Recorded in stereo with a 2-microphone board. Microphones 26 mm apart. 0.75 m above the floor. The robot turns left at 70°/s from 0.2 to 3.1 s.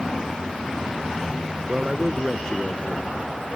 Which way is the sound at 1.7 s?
145° right.